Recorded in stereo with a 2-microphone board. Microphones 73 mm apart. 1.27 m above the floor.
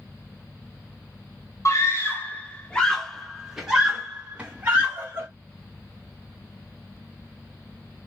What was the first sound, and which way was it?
A scream, 40° left (ahead or behind).